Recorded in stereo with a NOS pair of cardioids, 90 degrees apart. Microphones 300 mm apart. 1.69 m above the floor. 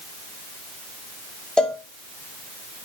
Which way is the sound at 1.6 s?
5° left.